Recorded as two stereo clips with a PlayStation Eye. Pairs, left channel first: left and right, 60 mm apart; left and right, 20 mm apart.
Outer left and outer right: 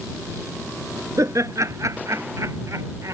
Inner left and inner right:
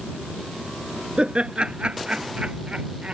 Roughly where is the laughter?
Right.